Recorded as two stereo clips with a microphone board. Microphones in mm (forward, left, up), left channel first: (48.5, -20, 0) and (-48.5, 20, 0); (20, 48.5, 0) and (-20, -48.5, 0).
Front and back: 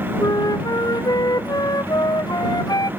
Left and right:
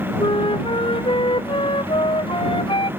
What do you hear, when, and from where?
0.2 s a flute: 30° left